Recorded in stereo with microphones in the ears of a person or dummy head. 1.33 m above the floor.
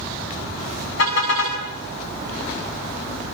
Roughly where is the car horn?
Left.